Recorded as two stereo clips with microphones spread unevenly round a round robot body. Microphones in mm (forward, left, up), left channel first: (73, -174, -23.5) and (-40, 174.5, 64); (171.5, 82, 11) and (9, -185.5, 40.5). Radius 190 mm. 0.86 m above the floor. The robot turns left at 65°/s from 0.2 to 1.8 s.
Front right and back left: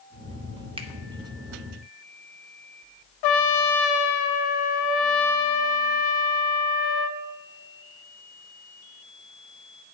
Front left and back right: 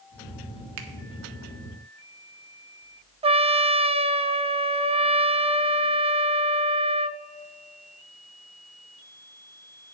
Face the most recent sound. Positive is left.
turn(degrees=-45)